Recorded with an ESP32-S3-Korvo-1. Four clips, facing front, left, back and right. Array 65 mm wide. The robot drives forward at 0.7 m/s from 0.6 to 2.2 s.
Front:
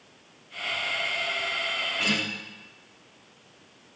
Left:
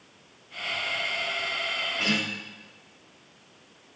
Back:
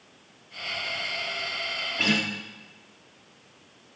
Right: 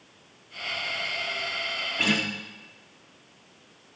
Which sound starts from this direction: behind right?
A guitar, at 2.0 s.